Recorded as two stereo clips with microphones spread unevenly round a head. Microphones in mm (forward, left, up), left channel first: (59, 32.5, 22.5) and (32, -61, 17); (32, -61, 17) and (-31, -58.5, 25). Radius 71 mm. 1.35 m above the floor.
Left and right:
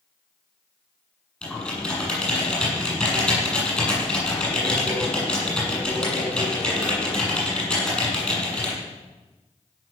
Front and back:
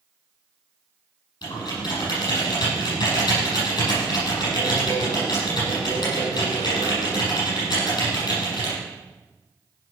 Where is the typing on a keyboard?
5° right, 7.5 m.